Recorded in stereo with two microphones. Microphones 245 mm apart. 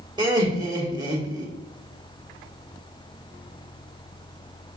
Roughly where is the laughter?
Centre.